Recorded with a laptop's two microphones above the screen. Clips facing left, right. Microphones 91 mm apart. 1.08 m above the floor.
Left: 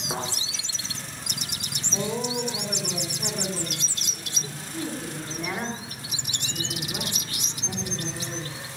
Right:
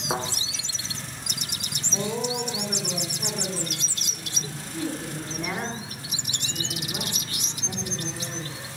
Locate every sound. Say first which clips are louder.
0.1 s a thud: right 3 dB; 65° right (ahead or behind), 6 m
1.9 s a woman speaking: even; centre (ahead or behind), 3 m